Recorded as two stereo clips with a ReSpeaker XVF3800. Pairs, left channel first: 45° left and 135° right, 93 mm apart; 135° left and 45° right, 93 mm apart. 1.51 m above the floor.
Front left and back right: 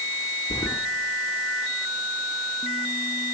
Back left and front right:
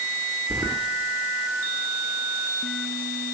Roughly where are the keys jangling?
Ahead.